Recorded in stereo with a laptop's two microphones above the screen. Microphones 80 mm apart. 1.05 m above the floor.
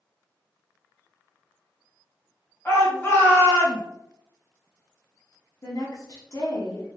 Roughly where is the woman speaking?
Left.